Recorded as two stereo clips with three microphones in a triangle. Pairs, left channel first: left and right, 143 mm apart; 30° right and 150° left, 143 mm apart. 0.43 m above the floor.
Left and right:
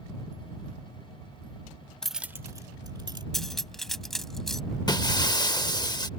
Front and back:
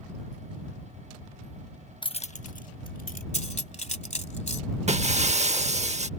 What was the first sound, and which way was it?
Keys jangling, 5° left.